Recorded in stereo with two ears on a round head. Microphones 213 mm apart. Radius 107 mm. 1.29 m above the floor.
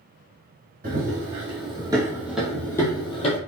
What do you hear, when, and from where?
0.8 s running footsteps: 40° right (ahead or behind), 2 m; by 3.4 s 30° left (ahead or behind), 1.5 m